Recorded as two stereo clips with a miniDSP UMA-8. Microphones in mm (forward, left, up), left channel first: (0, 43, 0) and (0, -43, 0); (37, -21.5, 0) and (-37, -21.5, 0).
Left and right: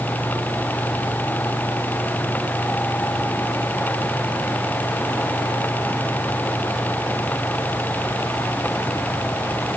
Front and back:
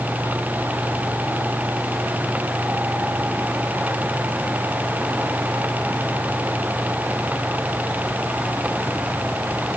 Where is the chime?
I don't hear a chime.